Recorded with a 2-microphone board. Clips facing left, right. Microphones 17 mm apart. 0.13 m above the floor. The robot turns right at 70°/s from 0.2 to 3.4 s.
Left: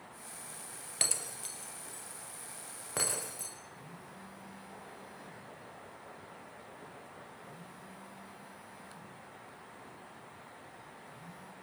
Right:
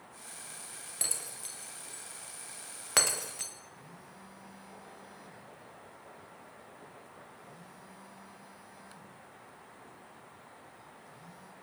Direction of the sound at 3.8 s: 20° right (ahead or behind).